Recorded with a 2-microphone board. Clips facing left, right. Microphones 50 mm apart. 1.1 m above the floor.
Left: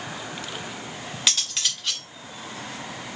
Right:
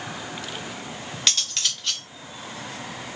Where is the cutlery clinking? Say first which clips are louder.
Even; 5° left (ahead or behind), 1.3 m.